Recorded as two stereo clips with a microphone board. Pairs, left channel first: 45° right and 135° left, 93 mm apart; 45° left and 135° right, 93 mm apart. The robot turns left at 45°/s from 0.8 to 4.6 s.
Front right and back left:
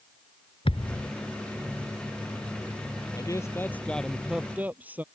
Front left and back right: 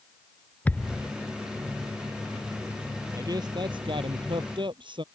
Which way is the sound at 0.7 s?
30° right.